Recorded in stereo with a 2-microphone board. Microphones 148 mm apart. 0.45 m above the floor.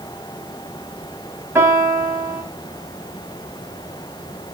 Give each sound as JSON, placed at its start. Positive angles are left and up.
{"t": 1.6, "sound": "a piano", "side_deg": -15, "distance_m": 2.5}